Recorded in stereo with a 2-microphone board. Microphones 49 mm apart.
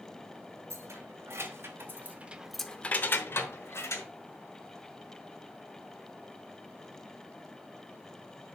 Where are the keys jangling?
70° right (ahead or behind), 2 m; by 4.1 s 70° left (ahead or behind), 1.8 m.